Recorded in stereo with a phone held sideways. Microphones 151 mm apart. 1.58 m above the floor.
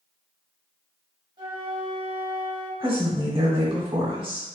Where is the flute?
30° right (ahead or behind), 1.3 m.